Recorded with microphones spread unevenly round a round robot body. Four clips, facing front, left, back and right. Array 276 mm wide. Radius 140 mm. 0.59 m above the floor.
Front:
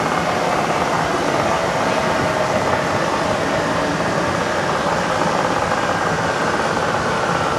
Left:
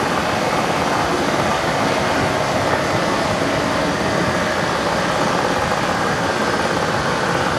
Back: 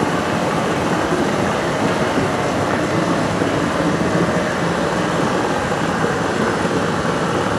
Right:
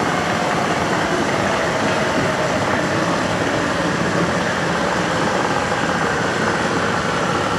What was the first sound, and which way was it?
Running water, 170° right.